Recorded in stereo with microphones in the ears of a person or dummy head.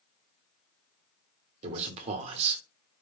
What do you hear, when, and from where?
1.6 s a man speaking: 35° right (ahead or behind), 1.0 m